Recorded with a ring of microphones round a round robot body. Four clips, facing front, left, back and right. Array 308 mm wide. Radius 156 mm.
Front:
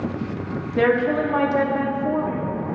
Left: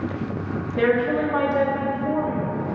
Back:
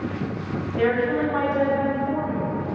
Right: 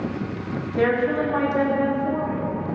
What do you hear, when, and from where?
0.8 s a woman speaking: 5° right, 1.9 m